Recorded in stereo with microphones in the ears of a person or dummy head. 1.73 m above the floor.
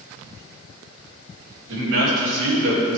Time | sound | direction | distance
1.7 | a man speaking | 75° right (ahead or behind) | 3.5 m